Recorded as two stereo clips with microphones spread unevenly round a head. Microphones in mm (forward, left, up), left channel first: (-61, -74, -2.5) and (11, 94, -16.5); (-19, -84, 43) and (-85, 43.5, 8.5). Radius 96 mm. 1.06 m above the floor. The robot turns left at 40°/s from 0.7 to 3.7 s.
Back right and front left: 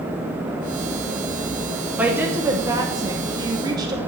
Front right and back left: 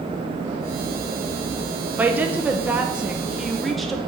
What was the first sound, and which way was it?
A woman speaking, 125° left.